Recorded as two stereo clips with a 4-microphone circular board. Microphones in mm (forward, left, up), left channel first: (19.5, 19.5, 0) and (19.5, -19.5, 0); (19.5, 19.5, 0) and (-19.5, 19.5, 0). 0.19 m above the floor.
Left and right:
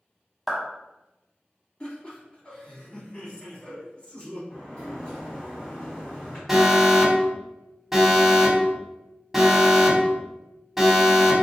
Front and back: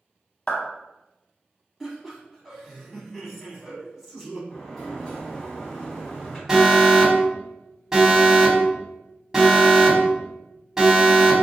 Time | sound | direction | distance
0.5 | a clap | 20° right | 0.8 m
1.8 | laughter | 100° left | 1.3 m
4.5 | a sliding door | 90° left | 1.5 m
6.5 | an alarm | 150° right | 0.9 m